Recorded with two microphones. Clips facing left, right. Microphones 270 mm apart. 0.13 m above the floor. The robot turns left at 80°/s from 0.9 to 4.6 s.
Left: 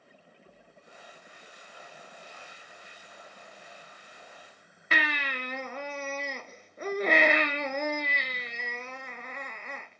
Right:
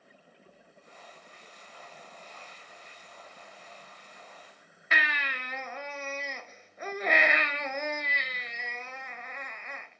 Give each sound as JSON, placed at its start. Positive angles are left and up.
{"t": 4.9, "sound": "a baby crying", "side_deg": 40, "distance_m": 0.6}